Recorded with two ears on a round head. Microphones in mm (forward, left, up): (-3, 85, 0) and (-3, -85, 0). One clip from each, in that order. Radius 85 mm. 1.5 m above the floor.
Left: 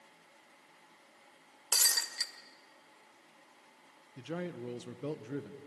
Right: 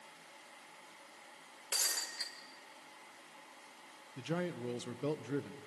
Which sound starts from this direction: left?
Breaking glass, at 1.7 s.